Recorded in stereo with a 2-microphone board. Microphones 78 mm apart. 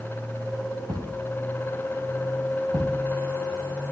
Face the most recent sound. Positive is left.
turn(degrees=-60)  # may be behind; listen again after turning